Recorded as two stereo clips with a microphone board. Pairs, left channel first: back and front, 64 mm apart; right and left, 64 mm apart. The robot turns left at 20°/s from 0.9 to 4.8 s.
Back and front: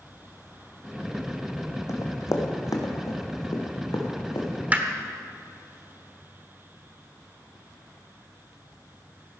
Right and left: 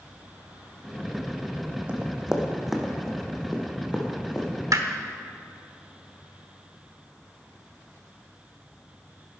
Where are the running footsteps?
160° left, 2 m; by 4.5 s 170° right, 3 m.